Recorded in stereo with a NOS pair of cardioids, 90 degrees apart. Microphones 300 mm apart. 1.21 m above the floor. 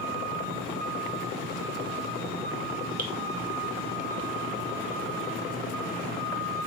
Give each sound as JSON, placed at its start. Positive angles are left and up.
{"t": 3.0, "sound": "dripping", "azimuth_deg": -30, "distance_m": 0.8}